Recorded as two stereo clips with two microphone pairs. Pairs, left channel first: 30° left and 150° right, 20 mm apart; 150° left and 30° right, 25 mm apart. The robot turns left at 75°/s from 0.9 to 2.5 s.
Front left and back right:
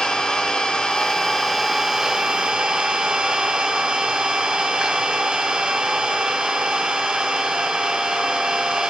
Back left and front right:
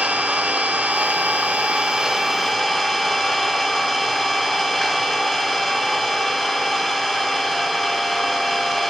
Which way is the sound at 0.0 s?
10° right.